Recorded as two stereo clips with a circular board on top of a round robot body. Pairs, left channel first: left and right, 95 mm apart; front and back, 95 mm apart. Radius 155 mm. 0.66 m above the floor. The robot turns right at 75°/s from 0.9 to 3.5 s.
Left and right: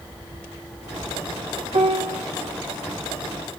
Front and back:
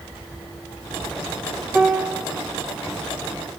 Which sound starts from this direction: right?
A piano, at 1.7 s.